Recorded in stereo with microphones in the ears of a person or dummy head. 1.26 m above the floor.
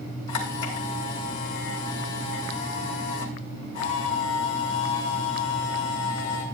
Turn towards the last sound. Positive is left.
turn(degrees=80)